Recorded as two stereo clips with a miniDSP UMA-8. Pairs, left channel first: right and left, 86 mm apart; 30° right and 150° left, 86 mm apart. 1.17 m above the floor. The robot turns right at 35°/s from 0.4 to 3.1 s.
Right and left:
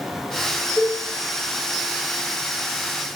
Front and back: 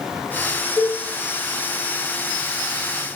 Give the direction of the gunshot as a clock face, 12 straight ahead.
I don't hear a gunshot.